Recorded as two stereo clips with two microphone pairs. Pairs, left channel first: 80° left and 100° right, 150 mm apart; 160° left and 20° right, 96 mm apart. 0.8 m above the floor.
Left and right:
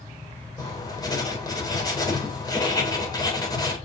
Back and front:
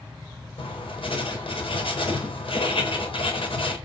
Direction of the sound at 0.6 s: 145° left.